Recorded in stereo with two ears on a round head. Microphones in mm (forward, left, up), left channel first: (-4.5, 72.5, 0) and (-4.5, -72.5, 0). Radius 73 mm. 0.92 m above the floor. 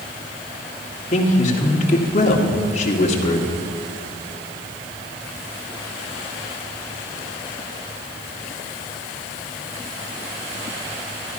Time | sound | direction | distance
1.1 | a man speaking | 45° left (ahead or behind) | 2 m